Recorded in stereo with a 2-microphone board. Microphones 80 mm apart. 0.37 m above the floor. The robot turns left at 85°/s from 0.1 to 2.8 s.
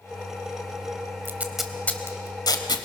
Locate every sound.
1.2 s tape being pulled: 30° right (ahead or behind), 1.4 m; by 2.8 s 60° left (ahead or behind), 1.4 m